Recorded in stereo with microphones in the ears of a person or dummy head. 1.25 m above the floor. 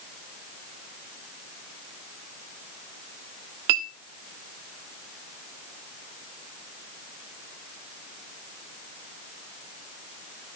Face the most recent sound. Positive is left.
turn(degrees=-50)  # may be behind; listen again after turning